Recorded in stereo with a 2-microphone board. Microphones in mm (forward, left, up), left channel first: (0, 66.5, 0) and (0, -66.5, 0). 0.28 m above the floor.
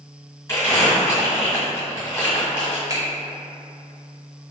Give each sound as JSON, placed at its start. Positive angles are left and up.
{"t": 0.5, "sound": "crumpling", "side_deg": 20, "distance_m": 2.0}
{"t": 2.9, "sound": "a finger snap", "side_deg": -25, "distance_m": 0.9}